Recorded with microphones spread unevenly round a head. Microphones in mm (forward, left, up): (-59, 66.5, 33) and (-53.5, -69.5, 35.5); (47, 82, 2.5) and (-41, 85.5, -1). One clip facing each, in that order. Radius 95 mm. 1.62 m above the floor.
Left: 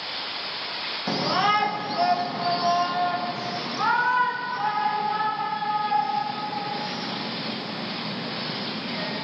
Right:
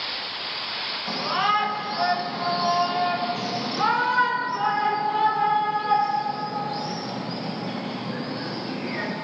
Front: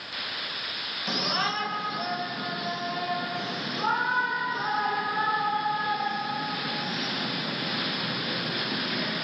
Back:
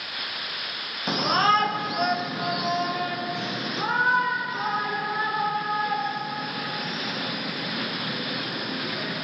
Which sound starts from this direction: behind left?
A shout, at 1.1 s.